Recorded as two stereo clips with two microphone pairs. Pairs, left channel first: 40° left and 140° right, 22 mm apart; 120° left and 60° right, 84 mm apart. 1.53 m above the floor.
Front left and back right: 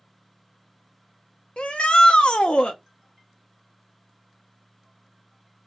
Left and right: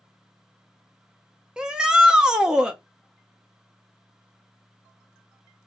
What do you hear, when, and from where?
1.6 s a shout: 20° left, 0.5 m